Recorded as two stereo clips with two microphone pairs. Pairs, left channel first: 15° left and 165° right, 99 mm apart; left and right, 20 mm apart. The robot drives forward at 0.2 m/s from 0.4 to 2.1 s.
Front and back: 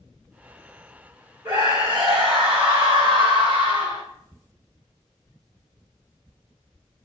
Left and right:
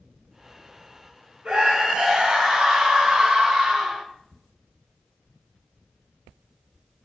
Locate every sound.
1.4 s a scream: 130° right, 3 m; by 4.0 s 135° right, 3 m